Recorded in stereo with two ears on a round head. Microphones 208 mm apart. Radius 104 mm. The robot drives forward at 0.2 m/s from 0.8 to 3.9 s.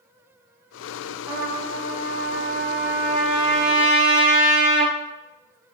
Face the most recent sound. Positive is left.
turn(degrees=0)  # may be behind; listen again after turning